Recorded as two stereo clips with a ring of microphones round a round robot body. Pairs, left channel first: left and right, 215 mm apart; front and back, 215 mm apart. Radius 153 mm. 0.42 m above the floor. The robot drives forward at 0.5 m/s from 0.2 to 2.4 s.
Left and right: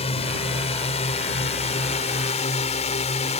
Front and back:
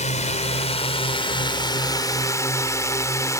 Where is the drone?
40° left; by 3.4 s 65° left.